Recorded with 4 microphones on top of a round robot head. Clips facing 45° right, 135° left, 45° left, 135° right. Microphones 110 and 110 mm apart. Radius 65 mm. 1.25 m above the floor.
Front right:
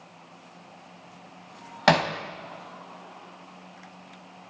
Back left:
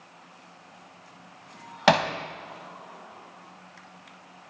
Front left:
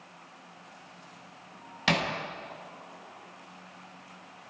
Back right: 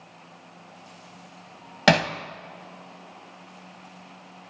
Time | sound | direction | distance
1.9 | hammering | 140° right | 2.0 m